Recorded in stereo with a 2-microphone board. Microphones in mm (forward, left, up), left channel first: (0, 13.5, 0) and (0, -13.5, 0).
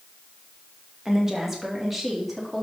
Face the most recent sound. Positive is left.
turn(degrees=5)  # may be behind; listen again after turning